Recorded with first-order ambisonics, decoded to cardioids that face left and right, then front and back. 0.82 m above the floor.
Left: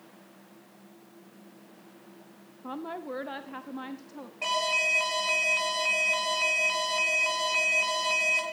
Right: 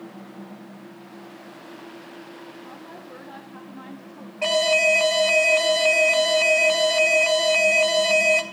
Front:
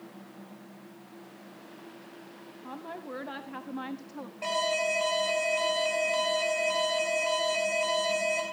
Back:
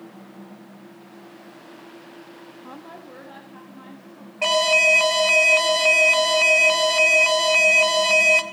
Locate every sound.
2.6 s a woman speaking: 100° left, 0.5 m; by 4.3 s 35° left, 1.1 m
4.4 s an alarm: 160° right, 1.2 m